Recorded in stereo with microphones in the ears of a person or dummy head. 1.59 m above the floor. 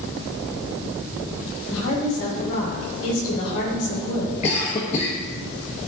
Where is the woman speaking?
85° left, 4 m.